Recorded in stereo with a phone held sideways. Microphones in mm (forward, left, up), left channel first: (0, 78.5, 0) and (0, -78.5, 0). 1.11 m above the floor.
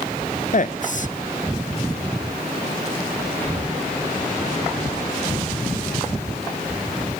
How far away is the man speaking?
About 0.8 m.